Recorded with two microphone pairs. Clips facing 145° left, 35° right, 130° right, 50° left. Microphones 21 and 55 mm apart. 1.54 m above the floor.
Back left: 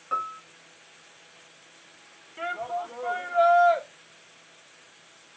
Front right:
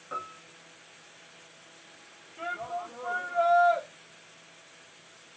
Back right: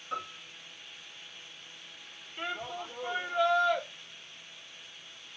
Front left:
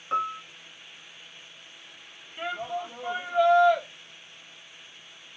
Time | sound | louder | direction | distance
0.1 | a piano | back left 8 dB, front left 10 dB | 95° left | 1.0 m
2.4 | a shout | back left 4 dB, front left 5 dB | 135° left | 1.6 m